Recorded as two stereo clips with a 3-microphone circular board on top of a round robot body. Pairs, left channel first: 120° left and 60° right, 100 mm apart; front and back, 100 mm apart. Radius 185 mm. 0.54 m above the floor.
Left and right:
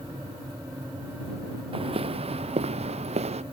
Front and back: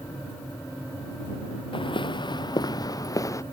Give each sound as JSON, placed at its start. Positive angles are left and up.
{"t": 1.7, "sound": "footsteps", "azimuth_deg": -35}